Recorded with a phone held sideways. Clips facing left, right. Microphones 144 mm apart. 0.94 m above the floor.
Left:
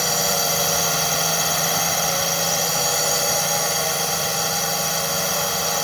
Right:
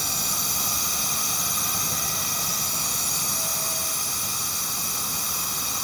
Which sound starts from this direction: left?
A drone, at 0.0 s.